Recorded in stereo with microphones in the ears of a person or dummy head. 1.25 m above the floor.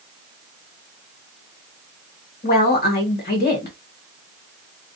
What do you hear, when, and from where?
2.4 s a woman speaking: 45° left (ahead or behind), 1.5 m